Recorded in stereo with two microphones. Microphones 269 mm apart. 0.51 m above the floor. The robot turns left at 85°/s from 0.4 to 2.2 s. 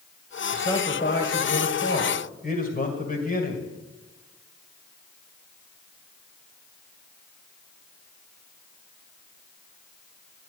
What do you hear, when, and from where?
0.5 s a man speaking: 170° right, 2 m; by 3.6 s 45° left, 2 m